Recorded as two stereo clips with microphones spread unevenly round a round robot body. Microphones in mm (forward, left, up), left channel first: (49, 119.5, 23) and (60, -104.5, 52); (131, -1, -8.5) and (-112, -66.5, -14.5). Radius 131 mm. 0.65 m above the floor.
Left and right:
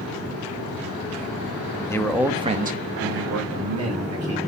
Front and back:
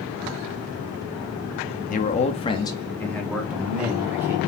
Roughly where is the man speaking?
Ahead left.